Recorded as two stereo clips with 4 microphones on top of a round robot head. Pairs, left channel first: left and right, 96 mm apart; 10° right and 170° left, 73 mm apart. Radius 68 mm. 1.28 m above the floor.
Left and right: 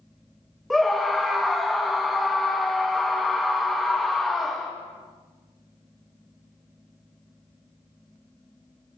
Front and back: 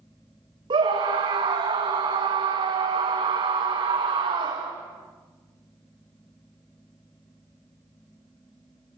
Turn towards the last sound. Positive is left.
turn(degrees=180)